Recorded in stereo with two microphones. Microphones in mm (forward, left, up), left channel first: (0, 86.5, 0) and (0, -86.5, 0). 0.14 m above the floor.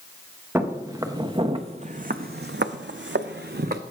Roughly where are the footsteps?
Centre.